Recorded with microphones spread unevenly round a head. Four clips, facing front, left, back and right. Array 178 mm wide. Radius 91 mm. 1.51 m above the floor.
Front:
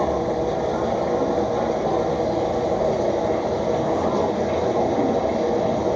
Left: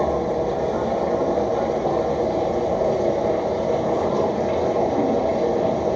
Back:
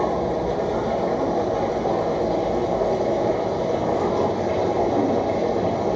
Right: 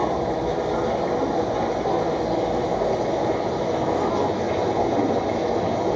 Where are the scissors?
No scissors in this recording.